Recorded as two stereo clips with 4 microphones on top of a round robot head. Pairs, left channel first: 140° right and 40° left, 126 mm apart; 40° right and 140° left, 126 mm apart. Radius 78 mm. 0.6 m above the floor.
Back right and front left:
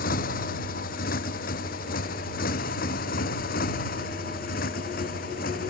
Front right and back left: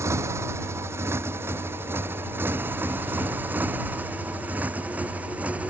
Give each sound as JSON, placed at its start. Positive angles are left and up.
{"t": 0.0, "sound": "a motorcycle", "azimuth_deg": -150}